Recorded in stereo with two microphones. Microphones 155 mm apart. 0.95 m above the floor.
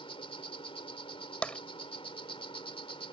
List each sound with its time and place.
0.0 s an insect: 35° left (ahead or behind)
1.4 s tapping: 10° left (ahead or behind)